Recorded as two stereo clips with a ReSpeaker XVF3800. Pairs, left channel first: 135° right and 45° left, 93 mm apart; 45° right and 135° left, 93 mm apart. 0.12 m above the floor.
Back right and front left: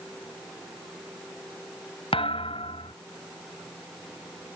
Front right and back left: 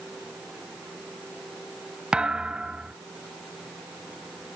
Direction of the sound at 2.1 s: 145° right.